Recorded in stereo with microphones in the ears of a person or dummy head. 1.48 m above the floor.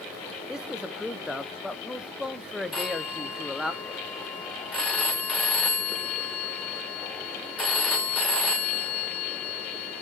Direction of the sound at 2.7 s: Centre (ahead or behind).